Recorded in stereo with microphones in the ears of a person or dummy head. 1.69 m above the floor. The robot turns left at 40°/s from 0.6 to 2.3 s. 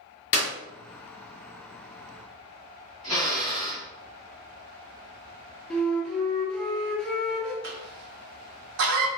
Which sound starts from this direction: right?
A cough, at 7.6 s.